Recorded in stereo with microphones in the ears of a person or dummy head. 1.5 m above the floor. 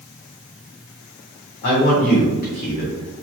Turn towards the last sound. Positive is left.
turn(degrees=50)  # may be behind; listen again after turning